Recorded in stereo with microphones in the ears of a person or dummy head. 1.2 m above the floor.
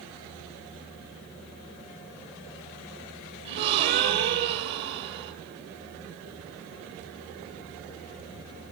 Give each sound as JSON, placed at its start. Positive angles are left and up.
{"t": 3.5, "sound": "a gasp", "side_deg": -60, "distance_m": 2.5}